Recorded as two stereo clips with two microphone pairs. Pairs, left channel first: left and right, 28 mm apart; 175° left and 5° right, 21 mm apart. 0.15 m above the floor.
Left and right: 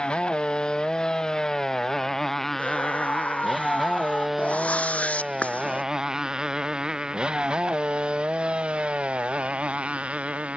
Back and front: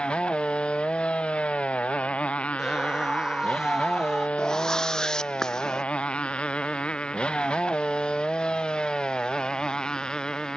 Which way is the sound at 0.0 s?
145° left.